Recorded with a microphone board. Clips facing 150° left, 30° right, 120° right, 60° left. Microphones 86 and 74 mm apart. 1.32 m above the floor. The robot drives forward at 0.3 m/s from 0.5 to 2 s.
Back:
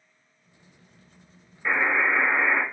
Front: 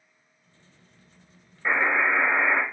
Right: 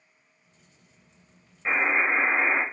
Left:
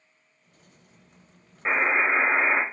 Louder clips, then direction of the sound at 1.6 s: Even, left 1 dB; 40° left.